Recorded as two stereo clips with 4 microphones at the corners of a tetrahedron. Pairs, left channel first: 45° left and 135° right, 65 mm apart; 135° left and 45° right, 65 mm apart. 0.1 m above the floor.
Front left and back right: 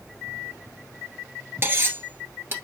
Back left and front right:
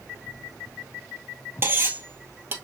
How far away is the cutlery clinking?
About 1.3 m.